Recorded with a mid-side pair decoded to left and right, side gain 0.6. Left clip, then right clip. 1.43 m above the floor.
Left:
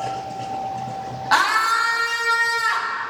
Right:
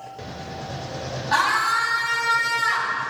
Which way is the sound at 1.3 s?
55° left.